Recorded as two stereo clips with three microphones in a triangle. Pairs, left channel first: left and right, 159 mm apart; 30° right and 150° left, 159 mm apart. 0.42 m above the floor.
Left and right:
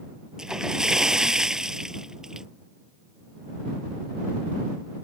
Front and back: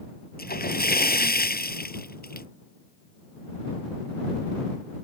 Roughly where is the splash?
Ahead.